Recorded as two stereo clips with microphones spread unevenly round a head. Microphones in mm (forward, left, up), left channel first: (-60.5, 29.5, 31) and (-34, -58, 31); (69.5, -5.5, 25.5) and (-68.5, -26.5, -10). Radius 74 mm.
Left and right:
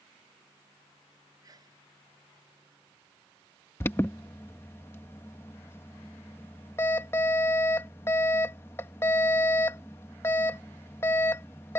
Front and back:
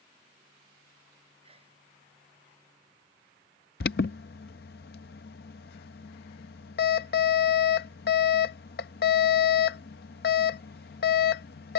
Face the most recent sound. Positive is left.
turn(degrees=35)